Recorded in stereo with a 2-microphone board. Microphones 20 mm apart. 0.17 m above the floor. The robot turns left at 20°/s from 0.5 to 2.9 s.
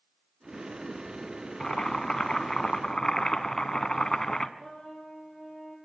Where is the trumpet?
35° left (ahead or behind), 4.5 m.